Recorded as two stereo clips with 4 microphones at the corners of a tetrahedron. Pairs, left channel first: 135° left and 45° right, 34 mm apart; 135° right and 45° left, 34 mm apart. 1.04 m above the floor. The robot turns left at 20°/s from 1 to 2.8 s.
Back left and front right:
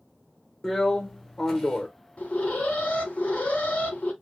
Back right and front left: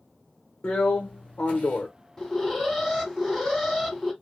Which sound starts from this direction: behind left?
An alarm, at 2.2 s.